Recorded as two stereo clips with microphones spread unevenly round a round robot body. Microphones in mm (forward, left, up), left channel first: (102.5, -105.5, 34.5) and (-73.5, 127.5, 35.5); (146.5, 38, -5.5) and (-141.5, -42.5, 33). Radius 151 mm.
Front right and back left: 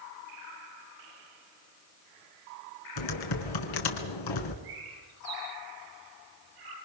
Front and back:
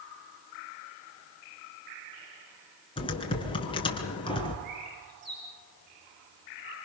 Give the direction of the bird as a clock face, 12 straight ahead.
7 o'clock.